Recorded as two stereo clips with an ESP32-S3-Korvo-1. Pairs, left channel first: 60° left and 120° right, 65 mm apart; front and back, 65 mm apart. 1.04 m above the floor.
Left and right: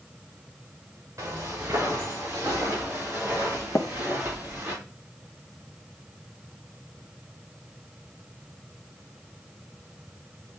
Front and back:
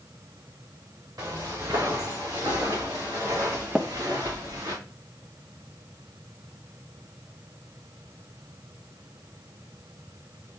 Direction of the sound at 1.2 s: 165° right.